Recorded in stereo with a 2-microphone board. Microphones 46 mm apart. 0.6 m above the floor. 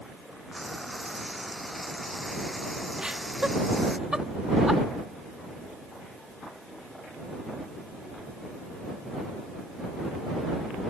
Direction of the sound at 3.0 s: 15° right (ahead or behind).